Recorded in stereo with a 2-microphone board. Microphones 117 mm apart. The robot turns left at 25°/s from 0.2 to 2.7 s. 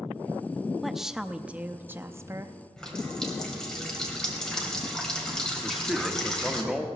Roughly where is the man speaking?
Centre.